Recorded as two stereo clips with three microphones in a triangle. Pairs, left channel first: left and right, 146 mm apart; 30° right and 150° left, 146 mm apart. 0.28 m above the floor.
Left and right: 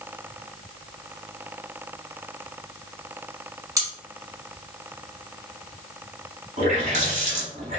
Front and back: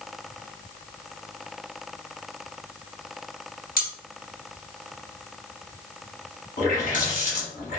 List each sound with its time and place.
3.8 s cutlery clinking: 25° right, 1.4 m
6.6 s a running tap: 55° right, 1.4 m